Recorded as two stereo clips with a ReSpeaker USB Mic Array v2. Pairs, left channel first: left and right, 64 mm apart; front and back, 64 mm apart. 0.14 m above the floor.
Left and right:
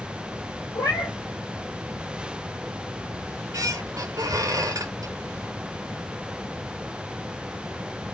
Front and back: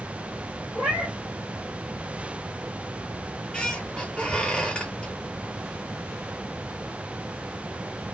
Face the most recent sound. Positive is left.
turn(degrees=-75)